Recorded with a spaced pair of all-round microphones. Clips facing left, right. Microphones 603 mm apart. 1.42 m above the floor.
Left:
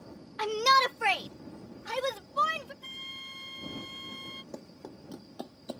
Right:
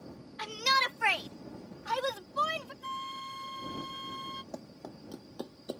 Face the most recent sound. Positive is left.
turn(degrees=25)  # may be behind; listen again after turning